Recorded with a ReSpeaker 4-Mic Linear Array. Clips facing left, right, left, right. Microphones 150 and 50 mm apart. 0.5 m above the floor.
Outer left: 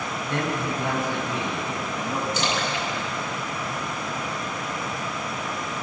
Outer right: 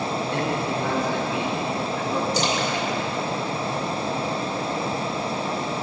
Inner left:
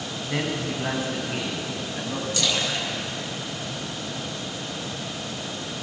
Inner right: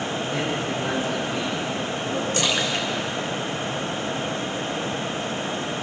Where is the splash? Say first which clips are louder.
Outer right 3 dB, inner right 1 dB; 40° right (ahead or behind), 3 m.